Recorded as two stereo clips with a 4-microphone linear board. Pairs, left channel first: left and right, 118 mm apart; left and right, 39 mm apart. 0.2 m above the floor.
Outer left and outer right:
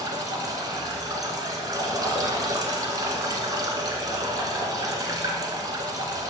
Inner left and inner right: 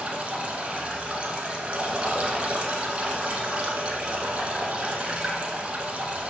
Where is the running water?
35° right (ahead or behind), 1.2 m.